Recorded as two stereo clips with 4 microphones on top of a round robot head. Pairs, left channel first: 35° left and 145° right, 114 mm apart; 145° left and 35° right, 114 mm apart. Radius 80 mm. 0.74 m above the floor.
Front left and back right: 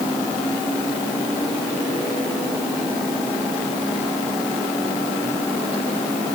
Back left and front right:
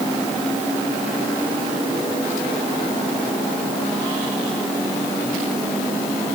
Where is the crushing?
No crushing in this recording.